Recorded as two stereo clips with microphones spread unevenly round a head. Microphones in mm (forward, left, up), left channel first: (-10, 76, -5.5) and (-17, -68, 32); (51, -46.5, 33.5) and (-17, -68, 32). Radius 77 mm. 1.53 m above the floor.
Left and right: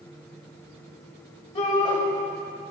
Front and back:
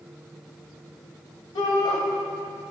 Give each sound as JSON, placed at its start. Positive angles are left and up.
{"t": 1.6, "sound": "a shout", "azimuth_deg": 30, "distance_m": 1.8}